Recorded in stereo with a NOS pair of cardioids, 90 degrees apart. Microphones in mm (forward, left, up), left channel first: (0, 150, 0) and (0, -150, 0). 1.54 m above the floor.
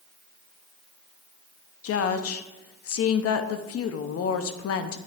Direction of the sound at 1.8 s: 55° left.